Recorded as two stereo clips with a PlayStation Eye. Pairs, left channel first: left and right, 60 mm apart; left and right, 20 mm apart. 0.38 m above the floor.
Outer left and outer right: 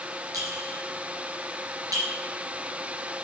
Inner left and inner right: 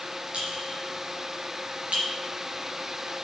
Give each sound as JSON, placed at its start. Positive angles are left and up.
{"t": 0.3, "sound": "a clink", "side_deg": -75, "distance_m": 3.5}